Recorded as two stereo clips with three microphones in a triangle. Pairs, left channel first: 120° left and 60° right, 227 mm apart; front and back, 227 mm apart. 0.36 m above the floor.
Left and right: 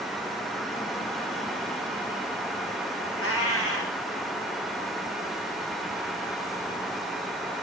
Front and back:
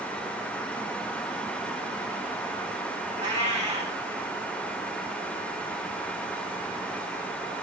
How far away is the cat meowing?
About 1.3 m.